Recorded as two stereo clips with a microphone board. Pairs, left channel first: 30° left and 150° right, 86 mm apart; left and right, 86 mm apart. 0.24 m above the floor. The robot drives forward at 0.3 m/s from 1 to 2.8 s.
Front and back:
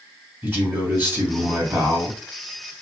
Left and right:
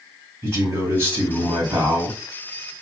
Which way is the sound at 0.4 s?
115° right.